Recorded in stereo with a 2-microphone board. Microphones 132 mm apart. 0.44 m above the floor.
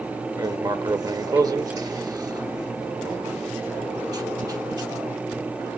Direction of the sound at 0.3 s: 30° right (ahead or behind).